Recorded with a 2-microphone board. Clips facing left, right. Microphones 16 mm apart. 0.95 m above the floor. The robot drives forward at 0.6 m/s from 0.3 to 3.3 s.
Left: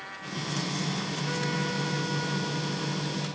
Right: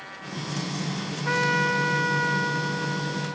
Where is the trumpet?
50° right (ahead or behind); by 3.4 s 45° right (ahead or behind).